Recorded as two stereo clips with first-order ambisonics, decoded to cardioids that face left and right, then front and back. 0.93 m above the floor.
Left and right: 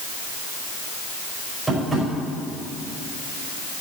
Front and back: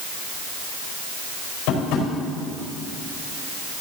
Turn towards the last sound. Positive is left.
turn(degrees=-5)